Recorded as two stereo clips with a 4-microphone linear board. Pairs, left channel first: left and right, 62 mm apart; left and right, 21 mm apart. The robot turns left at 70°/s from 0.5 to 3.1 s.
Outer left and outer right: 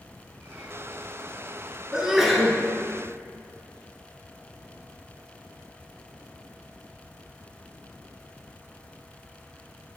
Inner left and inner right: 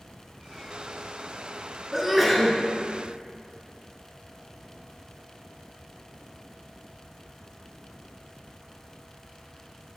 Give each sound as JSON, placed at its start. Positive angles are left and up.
{"t": 1.9, "sound": "a sneeze", "side_deg": -15, "distance_m": 1.4}